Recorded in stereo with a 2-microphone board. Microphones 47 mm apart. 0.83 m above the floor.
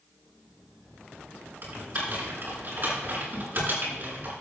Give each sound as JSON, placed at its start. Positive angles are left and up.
{"t": 1.6, "sound": "typing on a keyboard", "side_deg": -40, "distance_m": 6.5}